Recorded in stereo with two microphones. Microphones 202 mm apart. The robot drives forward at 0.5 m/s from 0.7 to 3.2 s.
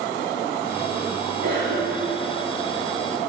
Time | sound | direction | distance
1.4 | a cough | 60° right (ahead or behind) | 1.4 m